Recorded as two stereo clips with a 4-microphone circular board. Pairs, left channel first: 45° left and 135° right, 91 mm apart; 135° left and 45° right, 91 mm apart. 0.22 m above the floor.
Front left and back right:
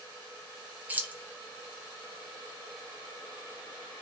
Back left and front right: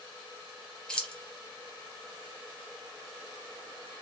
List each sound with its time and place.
0.9 s keys jangling: 165° right, 0.7 m